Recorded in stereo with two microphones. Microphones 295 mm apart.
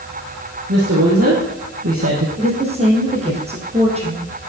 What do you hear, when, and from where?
0.7 s a woman speaking: 50° right (ahead or behind), 4 m
2.4 s a woman speaking: 20° right (ahead or behind), 4 m